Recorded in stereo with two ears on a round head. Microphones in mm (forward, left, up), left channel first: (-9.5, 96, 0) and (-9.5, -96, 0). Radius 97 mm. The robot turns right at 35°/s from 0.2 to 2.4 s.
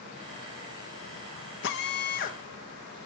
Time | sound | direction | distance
1.6 | a drill | 60° left (ahead or behind) | 1.3 m